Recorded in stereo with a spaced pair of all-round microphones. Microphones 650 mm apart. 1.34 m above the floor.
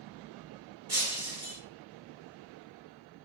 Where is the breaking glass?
20° right (ahead or behind), 3.5 m.